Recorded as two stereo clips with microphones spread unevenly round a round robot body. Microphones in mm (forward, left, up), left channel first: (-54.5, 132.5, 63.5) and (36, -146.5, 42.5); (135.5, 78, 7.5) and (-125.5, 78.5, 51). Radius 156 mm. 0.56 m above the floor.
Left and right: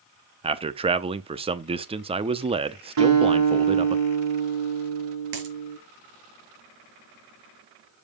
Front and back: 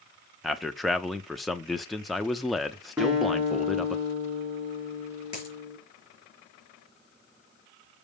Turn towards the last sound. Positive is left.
turn(degrees=-70)